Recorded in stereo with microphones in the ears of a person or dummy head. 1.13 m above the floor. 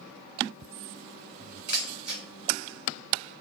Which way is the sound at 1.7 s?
30° right (ahead or behind).